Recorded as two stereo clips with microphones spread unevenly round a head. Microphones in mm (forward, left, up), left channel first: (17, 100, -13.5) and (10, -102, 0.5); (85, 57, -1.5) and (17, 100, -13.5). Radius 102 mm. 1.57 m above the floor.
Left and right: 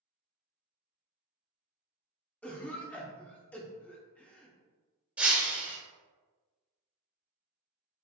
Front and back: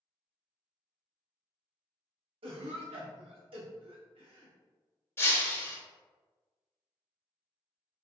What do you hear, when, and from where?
2.4 s a cough: 175° left, 0.9 m
5.2 s breaking glass: 20° right, 1.4 m